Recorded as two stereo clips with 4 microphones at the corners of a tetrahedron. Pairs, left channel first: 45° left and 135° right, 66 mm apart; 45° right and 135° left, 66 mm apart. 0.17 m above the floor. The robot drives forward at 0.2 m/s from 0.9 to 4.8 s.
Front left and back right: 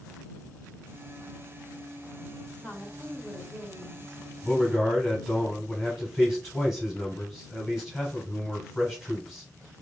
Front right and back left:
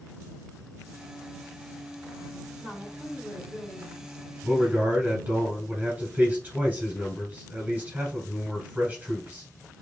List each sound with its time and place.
2.6 s a woman speaking: 150° left, 1.3 m; by 4.2 s 160° left, 1.5 m
4.4 s a man speaking: 140° left, 1.0 m; by 9.5 s 145° left, 1.0 m